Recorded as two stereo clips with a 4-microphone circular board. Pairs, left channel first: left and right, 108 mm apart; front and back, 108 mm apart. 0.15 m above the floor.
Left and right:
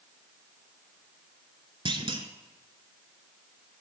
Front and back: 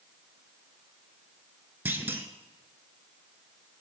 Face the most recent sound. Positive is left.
turn(degrees=-110)